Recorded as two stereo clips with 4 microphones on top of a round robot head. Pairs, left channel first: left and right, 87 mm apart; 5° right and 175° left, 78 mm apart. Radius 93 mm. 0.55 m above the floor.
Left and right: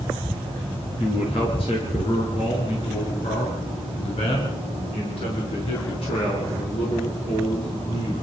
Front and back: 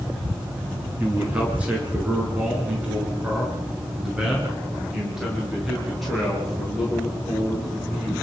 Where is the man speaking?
105° left, 7.5 m; by 8.1 s 85° left, 9.5 m.